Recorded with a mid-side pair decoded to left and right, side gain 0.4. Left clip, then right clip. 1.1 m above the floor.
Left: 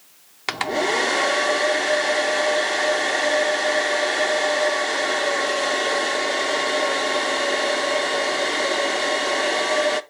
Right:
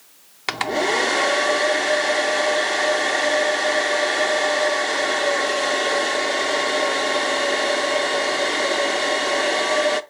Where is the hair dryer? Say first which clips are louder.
Right 1 dB; straight ahead, 0.7 m.